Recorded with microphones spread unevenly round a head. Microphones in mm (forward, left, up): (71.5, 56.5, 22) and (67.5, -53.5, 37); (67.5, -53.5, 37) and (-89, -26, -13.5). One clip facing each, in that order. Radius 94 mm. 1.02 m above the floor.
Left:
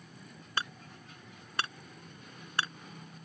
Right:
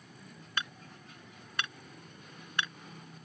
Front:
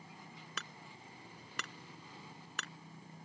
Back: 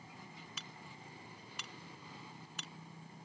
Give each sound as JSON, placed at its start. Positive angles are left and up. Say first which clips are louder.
{"t": 0.6, "sound": "hammering", "louder": "left 2 dB, front 1 dB", "azimuth_deg": 30}